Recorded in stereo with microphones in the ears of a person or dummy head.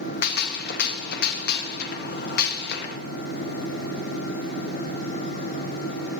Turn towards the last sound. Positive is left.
turn(degrees=60)  # may be behind; listen again after turning